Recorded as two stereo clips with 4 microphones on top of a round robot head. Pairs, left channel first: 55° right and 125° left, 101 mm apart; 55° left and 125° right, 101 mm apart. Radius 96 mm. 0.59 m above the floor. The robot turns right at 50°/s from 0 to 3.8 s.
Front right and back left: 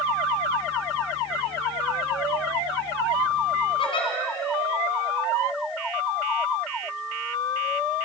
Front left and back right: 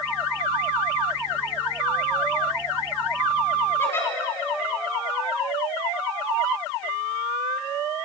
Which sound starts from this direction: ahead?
A giggle, at 3.8 s.